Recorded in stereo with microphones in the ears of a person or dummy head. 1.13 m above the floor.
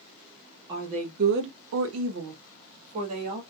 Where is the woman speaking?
30° right (ahead or behind), 0.7 m; by 3.4 s 35° right (ahead or behind), 1.3 m.